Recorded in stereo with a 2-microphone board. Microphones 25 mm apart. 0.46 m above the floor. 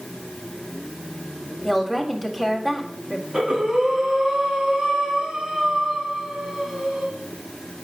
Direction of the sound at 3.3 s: 40° right (ahead or behind).